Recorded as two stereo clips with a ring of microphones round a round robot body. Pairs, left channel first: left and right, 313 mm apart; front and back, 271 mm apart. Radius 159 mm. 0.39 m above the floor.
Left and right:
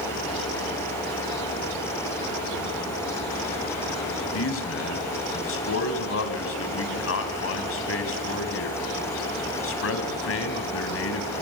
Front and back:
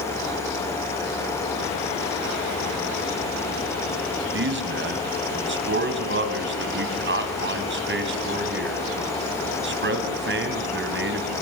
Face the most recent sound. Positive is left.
turn(degrees=135)